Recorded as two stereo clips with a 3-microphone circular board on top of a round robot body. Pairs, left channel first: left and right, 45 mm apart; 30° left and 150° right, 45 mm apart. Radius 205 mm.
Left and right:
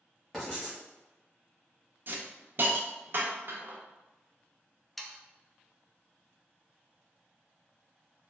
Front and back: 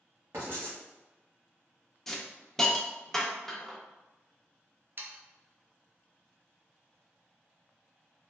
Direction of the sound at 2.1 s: 50° right.